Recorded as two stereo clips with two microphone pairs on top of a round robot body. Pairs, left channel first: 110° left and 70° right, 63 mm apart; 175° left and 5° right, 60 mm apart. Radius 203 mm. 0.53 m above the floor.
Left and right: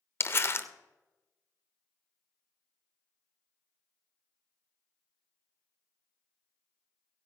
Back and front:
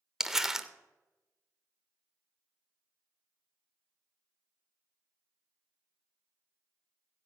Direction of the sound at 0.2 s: 85° left.